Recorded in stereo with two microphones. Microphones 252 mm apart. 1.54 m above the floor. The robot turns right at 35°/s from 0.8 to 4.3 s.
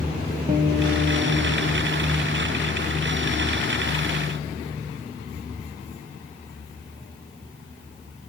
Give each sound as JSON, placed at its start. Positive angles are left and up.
{"t": 0.5, "sound": "a guitar", "azimuth_deg": -155, "distance_m": 1.9}